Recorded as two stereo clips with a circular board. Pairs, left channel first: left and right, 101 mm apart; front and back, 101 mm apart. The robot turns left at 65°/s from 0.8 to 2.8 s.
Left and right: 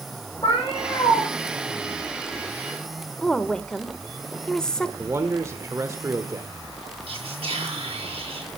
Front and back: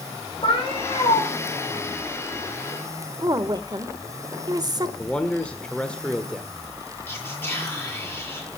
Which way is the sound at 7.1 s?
75° right.